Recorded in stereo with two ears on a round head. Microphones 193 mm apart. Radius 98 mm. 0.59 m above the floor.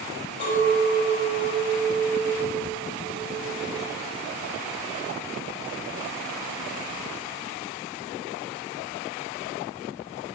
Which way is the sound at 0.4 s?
50° left (ahead or behind).